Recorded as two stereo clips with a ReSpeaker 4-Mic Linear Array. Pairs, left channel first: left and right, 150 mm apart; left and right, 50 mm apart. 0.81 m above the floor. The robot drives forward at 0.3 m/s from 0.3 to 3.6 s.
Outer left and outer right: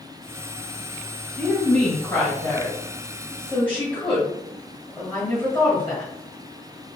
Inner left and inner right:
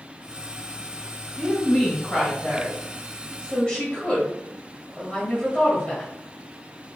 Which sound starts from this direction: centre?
A woman speaking, at 1.4 s.